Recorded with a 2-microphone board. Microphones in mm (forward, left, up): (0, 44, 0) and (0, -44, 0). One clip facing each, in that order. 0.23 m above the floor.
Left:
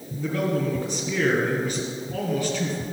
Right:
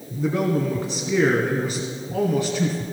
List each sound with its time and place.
0.2 s a man speaking: 30° right (ahead or behind), 2 m